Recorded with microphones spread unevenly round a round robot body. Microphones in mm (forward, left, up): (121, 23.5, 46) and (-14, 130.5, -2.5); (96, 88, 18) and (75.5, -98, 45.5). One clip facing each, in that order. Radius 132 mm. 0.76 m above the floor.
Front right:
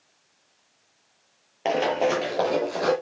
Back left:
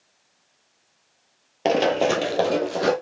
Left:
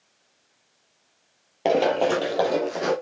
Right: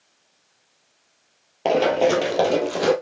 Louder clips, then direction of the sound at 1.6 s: Back left 3 dB, right 2 dB; straight behind.